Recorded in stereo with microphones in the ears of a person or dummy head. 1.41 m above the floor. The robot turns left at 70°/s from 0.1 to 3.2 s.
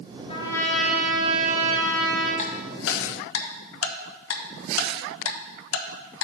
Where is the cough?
No cough in this recording.